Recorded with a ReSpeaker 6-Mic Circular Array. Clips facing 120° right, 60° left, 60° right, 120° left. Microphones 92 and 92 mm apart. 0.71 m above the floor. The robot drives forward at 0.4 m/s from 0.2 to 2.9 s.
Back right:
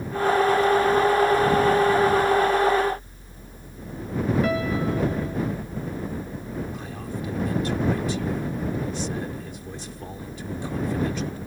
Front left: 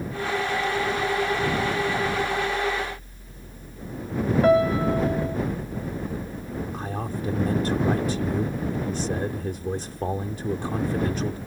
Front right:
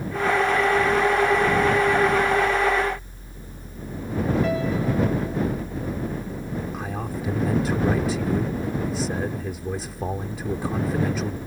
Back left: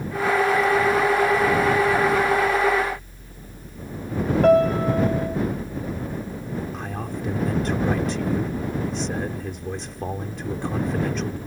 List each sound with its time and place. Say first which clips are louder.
4.4 s a piano: front left 6 dB, back left 7 dB; 115° left
6.7 s a man speaking: front left 3 dB, front right 1 dB; 25° left